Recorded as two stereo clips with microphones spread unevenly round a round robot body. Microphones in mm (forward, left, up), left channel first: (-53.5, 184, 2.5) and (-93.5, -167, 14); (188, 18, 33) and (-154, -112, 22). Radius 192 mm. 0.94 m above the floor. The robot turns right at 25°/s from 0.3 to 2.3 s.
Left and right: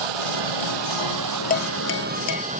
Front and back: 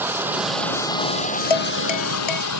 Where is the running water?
75° right; by 2.6 s 25° right.